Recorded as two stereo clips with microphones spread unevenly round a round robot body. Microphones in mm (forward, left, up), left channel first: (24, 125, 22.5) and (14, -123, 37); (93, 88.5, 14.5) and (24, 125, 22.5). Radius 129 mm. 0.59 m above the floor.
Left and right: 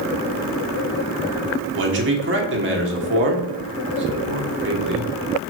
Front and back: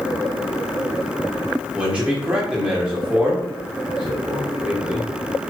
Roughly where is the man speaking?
Behind right.